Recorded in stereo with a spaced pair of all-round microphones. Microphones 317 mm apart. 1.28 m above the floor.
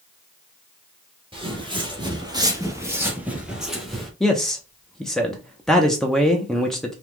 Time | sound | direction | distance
1.3 | footsteps | 15° right (ahead or behind) | 1.6 m
4.2 | a man speaking | centre (ahead or behind) | 0.8 m